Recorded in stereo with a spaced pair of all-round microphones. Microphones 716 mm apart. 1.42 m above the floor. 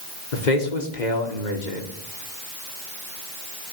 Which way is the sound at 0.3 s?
80° left.